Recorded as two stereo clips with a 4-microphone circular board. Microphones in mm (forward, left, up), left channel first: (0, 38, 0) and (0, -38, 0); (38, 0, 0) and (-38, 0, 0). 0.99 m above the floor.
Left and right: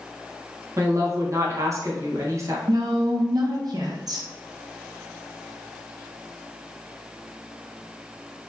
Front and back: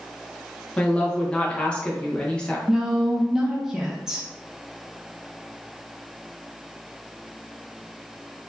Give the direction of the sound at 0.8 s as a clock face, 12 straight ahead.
2 o'clock.